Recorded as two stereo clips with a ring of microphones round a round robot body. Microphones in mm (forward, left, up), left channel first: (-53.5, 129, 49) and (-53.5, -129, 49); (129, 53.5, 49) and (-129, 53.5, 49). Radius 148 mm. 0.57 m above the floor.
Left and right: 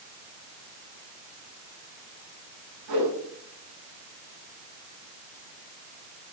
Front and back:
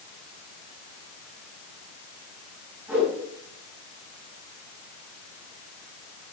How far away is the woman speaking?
I don't hear a woman speaking.